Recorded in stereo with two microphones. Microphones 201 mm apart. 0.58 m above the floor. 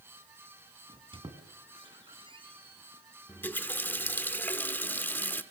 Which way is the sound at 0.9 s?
25° right (ahead or behind).